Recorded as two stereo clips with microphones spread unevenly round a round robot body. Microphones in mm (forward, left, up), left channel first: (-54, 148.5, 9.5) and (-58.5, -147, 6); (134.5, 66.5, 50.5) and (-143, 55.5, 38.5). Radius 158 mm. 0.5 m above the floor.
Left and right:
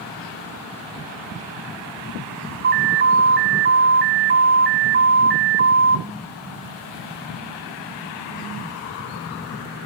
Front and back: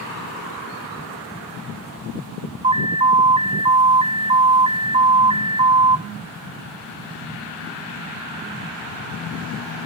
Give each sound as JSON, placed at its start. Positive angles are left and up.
{"t": 2.6, "sound": "an alarm", "azimuth_deg": -120, "distance_m": 1.0}